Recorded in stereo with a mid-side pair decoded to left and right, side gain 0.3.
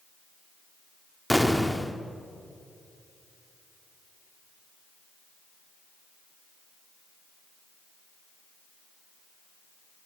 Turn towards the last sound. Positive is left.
turn(degrees=0)